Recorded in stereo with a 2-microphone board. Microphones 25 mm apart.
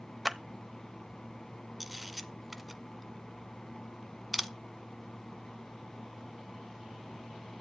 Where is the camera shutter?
Centre (ahead or behind), 0.9 m.